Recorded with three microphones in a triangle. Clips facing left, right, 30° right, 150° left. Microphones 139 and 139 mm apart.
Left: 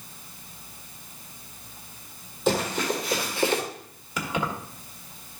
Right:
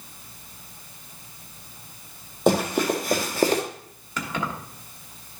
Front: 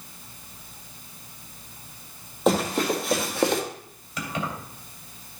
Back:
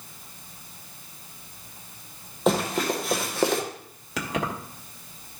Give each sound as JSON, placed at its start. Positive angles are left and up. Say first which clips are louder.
{"t": 2.5, "sound": "running footsteps", "louder": "right 4 dB, front 1 dB", "azimuth_deg": -120, "distance_m": 2.5}
{"t": 4.2, "sound": "keys jangling", "louder": "left 1 dB, back 2 dB", "azimuth_deg": 170, "distance_m": 1.4}